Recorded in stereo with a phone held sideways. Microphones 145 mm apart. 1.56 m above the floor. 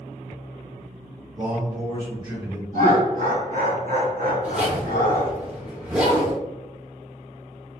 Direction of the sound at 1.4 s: 25° right (ahead or behind).